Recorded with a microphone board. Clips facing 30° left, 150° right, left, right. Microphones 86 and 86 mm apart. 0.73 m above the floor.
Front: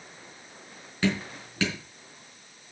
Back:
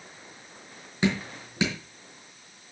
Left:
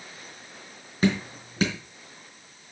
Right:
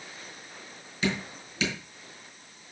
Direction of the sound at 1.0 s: 140° left.